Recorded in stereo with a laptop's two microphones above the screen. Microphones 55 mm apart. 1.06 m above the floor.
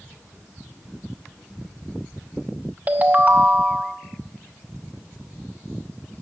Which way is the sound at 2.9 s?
30° right (ahead or behind).